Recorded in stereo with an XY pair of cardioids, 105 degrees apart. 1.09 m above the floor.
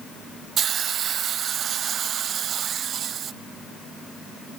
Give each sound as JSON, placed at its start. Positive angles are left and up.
{"t": 0.6, "sound": "a hiss", "azimuth_deg": -60, "distance_m": 0.6}